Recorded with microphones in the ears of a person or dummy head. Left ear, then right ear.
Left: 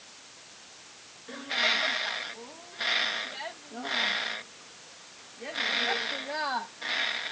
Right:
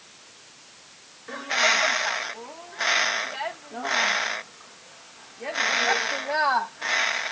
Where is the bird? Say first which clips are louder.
Right 5 dB; 30° right (ahead or behind).